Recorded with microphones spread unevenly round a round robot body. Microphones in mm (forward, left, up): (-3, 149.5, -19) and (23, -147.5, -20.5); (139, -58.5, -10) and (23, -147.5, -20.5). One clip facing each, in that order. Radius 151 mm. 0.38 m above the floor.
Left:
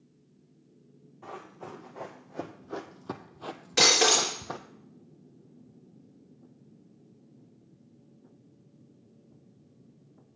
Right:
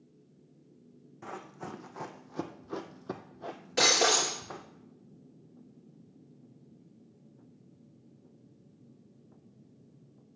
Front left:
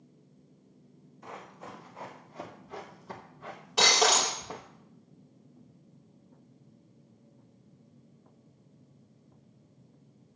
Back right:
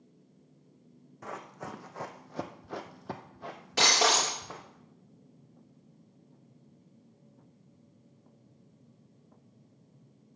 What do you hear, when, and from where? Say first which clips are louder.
1.2 s running footsteps: even, back right 3 dB; 135° right, 1.5 m; by 4.7 s 115° left, 1.0 m
3.8 s breaking glass: left 2 dB, front left 1 dB; 165° left, 3.5 m